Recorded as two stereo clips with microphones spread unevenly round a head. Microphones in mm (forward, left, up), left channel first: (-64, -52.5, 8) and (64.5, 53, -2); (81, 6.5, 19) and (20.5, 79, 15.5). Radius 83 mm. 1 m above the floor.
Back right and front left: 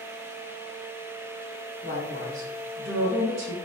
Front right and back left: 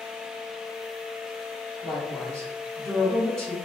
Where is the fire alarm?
I don't hear a fire alarm.